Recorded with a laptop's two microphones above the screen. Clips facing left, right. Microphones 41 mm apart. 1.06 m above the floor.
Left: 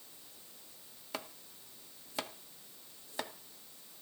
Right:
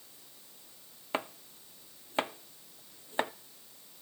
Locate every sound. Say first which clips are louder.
1.1 s chopping: right 8 dB; 35° right (ahead or behind), 0.6 m